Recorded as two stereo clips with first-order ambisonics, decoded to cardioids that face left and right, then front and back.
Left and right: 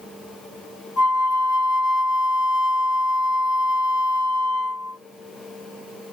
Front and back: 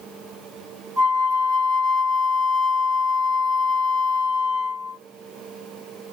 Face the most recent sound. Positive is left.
turn(degrees=120)